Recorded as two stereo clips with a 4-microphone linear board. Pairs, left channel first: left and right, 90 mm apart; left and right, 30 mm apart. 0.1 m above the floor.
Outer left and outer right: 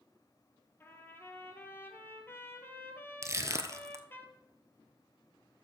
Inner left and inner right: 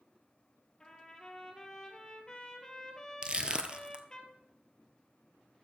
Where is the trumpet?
25° left (ahead or behind), 1.8 m.